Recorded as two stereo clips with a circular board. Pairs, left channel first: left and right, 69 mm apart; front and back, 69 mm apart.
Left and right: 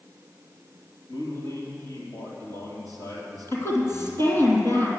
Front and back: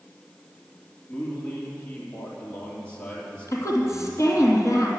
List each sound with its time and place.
1.1 s a man speaking: 70° left, 3.5 m
3.5 s a woman speaking: 40° left, 3 m